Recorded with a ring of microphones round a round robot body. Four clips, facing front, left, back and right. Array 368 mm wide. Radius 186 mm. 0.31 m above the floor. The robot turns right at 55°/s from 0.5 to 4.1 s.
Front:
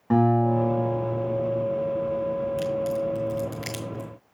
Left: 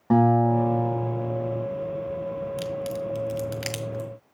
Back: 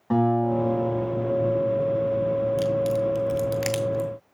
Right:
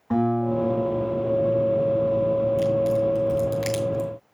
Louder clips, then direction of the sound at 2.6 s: Right 9 dB, back 3 dB; 110° left.